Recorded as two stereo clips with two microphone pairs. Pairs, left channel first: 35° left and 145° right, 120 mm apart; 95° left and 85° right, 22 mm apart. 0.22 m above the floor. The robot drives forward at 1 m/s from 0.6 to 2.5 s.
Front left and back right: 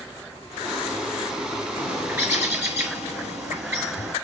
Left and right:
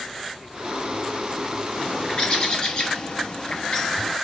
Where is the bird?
140° left, 3 m; by 4.1 s 150° left, 3.5 m.